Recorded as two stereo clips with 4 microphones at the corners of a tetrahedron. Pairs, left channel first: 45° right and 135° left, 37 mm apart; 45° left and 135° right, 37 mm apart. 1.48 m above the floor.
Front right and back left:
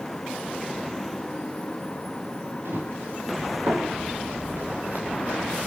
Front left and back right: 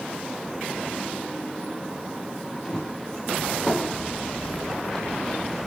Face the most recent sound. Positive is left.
turn(degrees=120)